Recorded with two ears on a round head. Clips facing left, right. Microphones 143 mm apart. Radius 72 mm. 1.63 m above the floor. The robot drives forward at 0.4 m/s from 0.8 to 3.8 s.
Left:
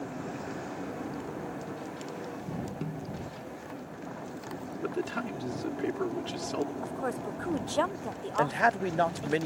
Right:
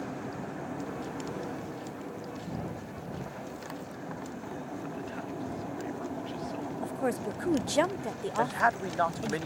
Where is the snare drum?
80° left.